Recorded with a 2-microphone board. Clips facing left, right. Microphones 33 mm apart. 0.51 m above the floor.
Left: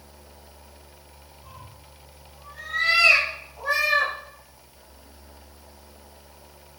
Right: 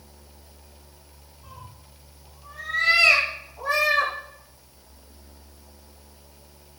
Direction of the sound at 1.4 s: Centre (ahead or behind).